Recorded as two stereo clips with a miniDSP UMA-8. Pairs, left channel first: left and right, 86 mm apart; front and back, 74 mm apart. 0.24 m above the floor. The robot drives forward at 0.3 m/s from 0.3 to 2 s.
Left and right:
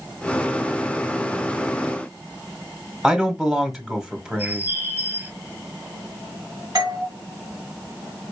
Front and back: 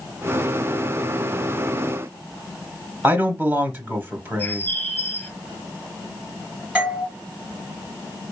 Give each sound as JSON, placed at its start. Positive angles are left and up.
{"t": 3.0, "sound": "a man speaking", "azimuth_deg": -160, "distance_m": 1.1}
{"t": 4.4, "sound": "a bird", "azimuth_deg": -50, "distance_m": 0.9}
{"t": 6.8, "sound": "a doorbell", "azimuth_deg": -105, "distance_m": 2.0}